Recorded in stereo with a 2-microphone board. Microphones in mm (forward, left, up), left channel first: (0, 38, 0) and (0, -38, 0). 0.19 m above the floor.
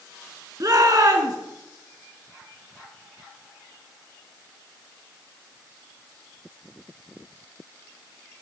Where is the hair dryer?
No hair dryer in this recording.